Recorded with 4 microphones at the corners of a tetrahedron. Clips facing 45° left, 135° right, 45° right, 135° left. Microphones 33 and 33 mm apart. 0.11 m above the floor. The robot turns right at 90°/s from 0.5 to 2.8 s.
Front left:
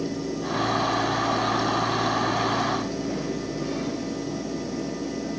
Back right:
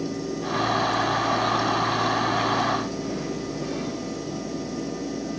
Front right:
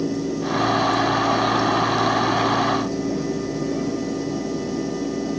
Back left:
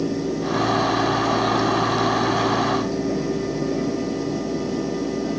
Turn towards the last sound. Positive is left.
No sound to turn to.